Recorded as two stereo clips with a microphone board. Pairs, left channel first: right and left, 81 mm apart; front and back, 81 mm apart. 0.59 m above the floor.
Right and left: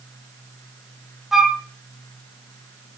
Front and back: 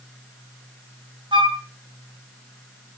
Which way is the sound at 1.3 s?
175° left.